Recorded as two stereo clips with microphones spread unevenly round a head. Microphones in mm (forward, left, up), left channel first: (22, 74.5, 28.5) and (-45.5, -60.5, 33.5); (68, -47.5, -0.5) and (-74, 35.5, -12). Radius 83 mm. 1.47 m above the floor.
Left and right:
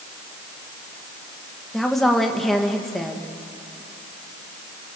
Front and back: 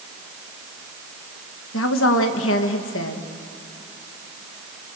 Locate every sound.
1.7 s a woman speaking: 25° right, 1.8 m